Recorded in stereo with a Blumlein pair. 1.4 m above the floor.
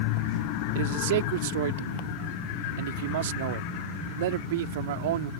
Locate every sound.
0.8 s a man speaking: 55° right